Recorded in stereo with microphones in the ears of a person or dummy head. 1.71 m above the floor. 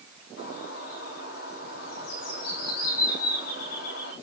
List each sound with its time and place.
0.4 s a bird: 80° left, 4.5 m